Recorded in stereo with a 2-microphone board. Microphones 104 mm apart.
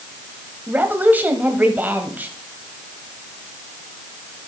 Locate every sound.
0.7 s a woman speaking: 15° right (ahead or behind), 1.6 m